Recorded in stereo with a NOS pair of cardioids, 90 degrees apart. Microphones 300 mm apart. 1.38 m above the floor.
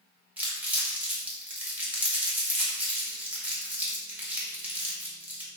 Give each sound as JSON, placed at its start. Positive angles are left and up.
{"t": 0.4, "sound": "crumpling", "azimuth_deg": -5, "distance_m": 1.3}